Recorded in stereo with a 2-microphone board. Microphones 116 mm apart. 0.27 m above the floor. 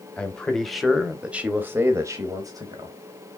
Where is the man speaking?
10° left (ahead or behind), 1.2 m; by 3.0 s 35° right (ahead or behind), 1.2 m.